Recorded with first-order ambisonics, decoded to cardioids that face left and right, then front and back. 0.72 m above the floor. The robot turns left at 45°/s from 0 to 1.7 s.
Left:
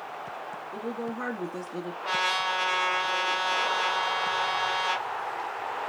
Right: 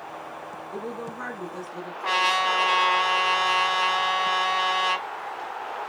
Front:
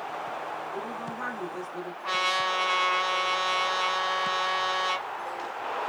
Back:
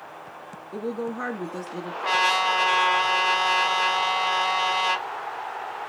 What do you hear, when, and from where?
0.7 s a woman speaking: 170° right, 1.1 m; by 1.9 s 150° left, 1.1 m
2.0 s a trumpet: 155° right, 2 m